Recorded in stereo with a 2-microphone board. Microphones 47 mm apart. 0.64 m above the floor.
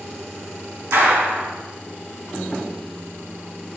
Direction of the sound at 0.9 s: 85° right.